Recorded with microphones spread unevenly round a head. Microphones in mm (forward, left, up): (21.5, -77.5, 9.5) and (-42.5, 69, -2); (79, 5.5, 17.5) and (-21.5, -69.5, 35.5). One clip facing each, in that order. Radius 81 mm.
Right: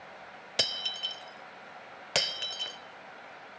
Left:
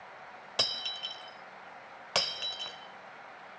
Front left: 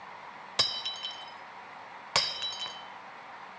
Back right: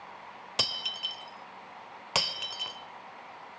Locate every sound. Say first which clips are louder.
0.6 s breaking glass: right 2 dB, even; 95° right, 1.2 m